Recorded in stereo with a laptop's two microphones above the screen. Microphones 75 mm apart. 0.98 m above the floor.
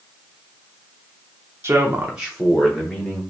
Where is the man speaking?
35° right (ahead or behind), 0.8 m; by 3.2 s 15° left (ahead or behind), 1.6 m.